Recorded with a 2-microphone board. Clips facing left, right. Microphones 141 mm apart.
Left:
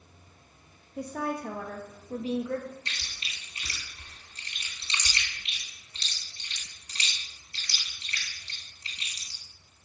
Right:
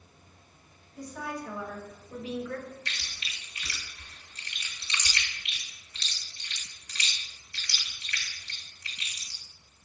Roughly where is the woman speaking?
Left.